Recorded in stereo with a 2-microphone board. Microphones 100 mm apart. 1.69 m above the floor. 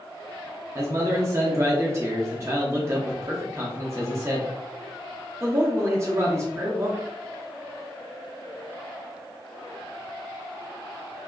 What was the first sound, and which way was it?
A man speaking, 30° right (ahead or behind).